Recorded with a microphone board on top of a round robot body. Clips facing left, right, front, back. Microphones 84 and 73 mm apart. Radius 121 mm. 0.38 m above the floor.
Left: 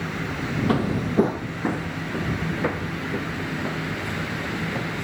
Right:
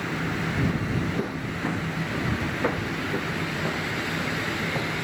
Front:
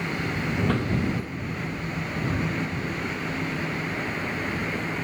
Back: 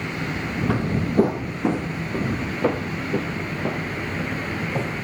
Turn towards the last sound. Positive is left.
turn(degrees=-170)